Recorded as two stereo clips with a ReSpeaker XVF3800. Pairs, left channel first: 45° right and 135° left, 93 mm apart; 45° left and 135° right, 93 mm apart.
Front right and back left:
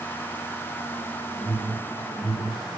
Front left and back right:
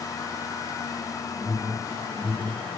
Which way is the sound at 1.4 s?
55° right.